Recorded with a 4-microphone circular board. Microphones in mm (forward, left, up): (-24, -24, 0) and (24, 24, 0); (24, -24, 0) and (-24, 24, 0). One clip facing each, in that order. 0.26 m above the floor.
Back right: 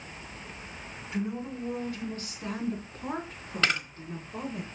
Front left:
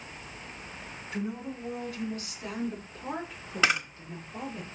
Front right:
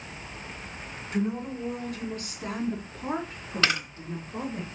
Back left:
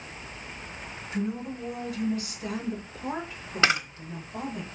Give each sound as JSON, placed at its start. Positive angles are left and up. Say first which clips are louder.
{"t": 1.1, "sound": "a woman speaking", "louder": "back right 2 dB, front right 2 dB", "azimuth_deg": -65, "distance_m": 3.0}
{"t": 3.6, "sound": "a camera shutter", "louder": "front left 2 dB, back left 3 dB", "azimuth_deg": 110, "distance_m": 1.0}